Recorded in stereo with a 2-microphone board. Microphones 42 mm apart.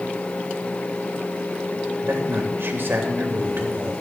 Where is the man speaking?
65° right (ahead or behind), 2.5 m.